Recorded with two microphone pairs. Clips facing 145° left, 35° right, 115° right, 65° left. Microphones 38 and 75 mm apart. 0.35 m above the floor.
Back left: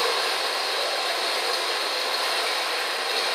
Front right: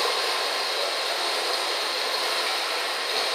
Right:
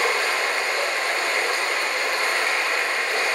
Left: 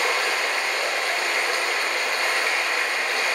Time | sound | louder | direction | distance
0.0 | running water | back left 1 dB, right 1 dB | 130° right | 0.9 m